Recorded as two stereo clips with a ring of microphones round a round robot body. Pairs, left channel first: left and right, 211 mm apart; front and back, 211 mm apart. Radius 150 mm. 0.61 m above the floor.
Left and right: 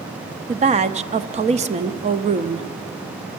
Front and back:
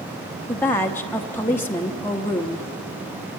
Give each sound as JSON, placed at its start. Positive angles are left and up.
{"t": 0.5, "sound": "a woman speaking", "azimuth_deg": -70, "distance_m": 0.6}